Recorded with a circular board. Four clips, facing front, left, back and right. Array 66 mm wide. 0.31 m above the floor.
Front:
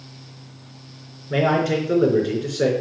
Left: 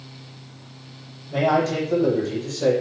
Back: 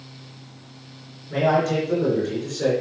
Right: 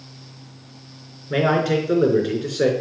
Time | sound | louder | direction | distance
1.3 | a man speaking | right 1 dB, front 1 dB | 60° right | 4 m